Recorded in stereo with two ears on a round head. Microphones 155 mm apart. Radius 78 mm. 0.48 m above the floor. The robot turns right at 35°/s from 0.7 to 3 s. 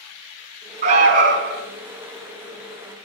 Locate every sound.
0.8 s an alarm: 40° right (ahead or behind), 1.6 m; by 1.6 s 60° right (ahead or behind), 1.6 m